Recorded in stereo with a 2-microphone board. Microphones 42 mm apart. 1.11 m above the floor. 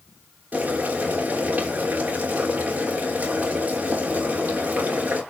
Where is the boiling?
40° right (ahead or behind), 3.5 m.